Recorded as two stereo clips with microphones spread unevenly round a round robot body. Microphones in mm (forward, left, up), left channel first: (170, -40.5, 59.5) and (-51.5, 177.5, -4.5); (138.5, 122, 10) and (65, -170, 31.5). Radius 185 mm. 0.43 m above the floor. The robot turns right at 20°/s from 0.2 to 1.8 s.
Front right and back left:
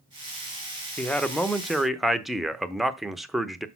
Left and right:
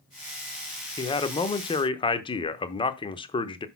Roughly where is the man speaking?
Ahead left.